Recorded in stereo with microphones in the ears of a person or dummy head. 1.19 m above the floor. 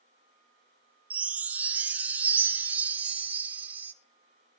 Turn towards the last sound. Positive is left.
turn(degrees=-5)  # may be behind; listen again after turning